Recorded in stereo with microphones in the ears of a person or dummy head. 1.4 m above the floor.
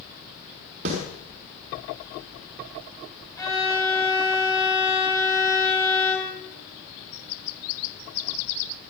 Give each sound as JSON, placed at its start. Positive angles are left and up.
{"t": 0.8, "sound": "a snare drum", "side_deg": -45, "distance_m": 4.5}
{"t": 3.4, "sound": "a violin", "side_deg": 15, "distance_m": 3.5}